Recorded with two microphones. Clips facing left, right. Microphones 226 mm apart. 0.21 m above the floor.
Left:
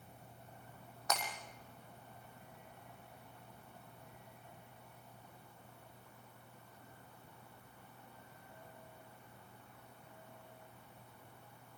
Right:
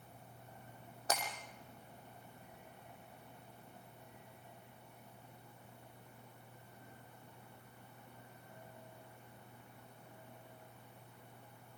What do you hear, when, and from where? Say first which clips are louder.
1.1 s breaking glass: right 1 dB; 30° right (ahead or behind), 6 m